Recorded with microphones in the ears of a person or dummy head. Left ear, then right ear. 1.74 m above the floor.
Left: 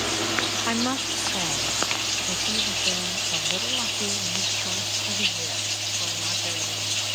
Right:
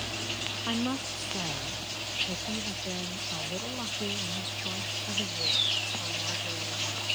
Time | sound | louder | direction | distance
0.7 | a woman speaking | left 7 dB | 20° left (ahead or behind) | ?